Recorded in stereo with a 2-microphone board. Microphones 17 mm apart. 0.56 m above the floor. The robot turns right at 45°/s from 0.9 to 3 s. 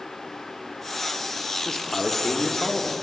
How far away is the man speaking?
About 0.9 m.